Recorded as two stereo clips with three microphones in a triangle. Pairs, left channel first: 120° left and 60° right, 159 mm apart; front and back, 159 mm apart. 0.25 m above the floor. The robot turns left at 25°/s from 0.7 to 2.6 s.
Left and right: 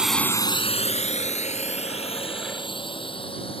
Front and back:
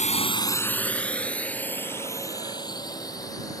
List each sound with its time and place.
0.0 s a drone: 25° left; by 3.6 s 65° left